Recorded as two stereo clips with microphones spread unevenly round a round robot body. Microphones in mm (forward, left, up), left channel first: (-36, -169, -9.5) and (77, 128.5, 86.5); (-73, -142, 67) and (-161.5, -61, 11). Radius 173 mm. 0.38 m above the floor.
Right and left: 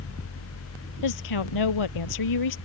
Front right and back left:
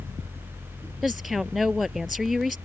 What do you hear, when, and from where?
1.0 s a woman speaking: 135° right